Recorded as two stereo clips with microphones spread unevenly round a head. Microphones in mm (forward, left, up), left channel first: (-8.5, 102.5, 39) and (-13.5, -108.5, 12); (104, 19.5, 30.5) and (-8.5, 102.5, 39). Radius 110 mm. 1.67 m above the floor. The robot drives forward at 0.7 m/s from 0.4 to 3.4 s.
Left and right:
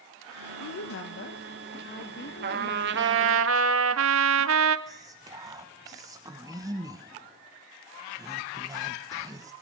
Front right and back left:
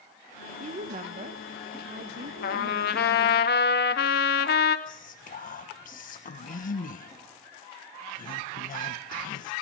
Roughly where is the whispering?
Ahead.